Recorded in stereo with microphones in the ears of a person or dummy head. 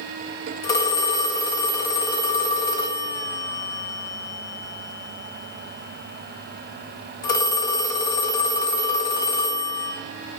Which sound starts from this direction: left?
A phone ringing, at 0.6 s.